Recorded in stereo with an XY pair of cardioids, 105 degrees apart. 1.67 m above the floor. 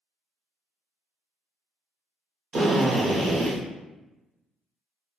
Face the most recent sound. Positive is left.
turn(degrees=-50)